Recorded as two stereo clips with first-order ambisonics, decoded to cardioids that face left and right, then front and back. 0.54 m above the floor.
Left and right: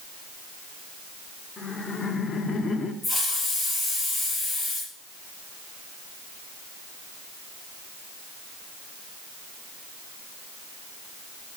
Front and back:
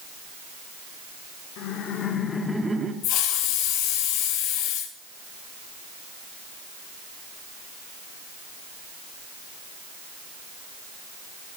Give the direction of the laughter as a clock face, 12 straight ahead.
11 o'clock.